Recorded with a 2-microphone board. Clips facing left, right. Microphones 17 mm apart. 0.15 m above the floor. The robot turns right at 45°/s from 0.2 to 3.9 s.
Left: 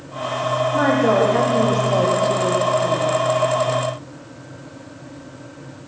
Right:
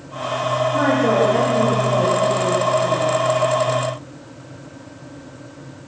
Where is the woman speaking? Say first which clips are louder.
Left 1 dB; 25° left, 5.5 m; by 3.2 s 135° left, 5.5 m.